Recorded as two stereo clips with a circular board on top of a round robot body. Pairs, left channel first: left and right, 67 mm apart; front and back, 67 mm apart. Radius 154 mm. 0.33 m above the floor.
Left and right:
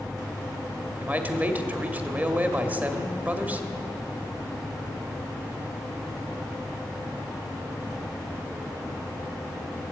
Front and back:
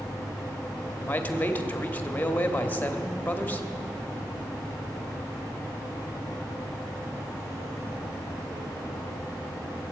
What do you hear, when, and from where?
1.0 s a man speaking: 45° right, 1.3 m